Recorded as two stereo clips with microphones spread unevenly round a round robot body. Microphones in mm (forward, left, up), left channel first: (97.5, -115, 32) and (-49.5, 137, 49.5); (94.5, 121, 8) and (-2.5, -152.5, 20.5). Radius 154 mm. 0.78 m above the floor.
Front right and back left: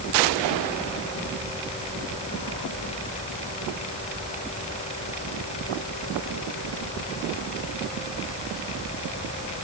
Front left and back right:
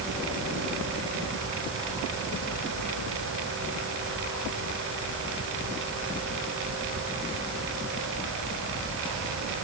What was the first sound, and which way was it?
Only background noise.